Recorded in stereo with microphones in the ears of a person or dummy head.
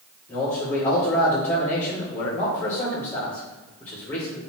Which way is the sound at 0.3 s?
15° left (ahead or behind).